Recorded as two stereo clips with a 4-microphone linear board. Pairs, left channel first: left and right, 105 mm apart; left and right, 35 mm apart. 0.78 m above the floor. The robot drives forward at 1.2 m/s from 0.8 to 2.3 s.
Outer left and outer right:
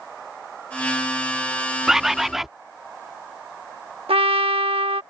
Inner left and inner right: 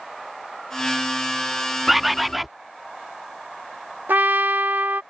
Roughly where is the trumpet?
Right.